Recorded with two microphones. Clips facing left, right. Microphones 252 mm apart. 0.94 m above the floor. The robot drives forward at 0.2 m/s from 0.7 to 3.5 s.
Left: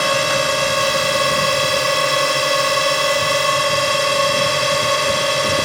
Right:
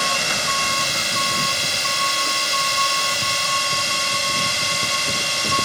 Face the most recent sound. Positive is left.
turn(degrees=65)  # may be behind; listen again after turning